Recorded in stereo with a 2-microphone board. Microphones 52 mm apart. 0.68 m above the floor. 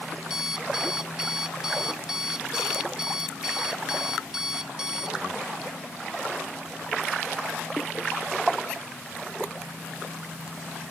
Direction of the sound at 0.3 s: 10° right (ahead or behind).